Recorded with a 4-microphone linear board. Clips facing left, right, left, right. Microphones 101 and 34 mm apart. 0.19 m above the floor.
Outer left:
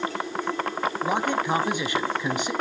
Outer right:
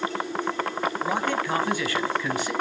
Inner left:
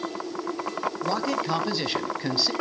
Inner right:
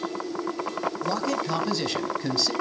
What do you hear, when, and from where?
1.0 s a man speaking: 20° left (ahead or behind), 1.0 m